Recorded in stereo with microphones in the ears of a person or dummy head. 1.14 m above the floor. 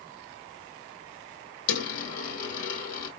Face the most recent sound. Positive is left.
turn(degrees=50)  # may be behind; listen again after turning